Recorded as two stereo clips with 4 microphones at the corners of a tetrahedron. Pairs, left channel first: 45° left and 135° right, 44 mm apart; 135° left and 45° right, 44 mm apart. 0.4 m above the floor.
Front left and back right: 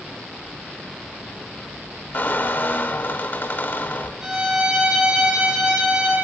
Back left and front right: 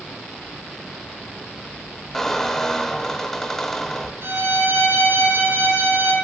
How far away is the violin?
About 4.5 m.